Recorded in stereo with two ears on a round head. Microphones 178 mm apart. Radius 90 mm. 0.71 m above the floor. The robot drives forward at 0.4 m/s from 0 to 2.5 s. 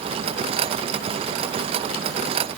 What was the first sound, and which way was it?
Only background noise.